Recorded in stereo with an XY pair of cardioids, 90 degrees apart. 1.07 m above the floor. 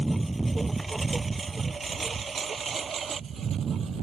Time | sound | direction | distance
0.0 | a lawn mower | 20° right | ?